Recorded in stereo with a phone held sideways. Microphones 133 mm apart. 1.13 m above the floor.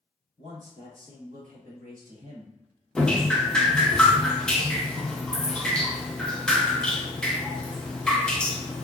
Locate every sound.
0.4 s a man speaking: 70° right (ahead or behind), 1.9 m; by 2.5 s 40° right (ahead or behind), 0.6 m
3.0 s dripping: 5° left (ahead or behind), 0.5 m